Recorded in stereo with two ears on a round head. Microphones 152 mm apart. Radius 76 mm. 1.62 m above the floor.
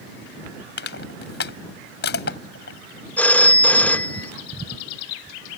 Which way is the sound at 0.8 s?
65° left (ahead or behind).